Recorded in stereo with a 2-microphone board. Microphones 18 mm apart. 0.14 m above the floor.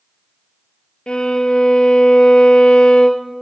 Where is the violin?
70° left (ahead or behind), 0.7 m.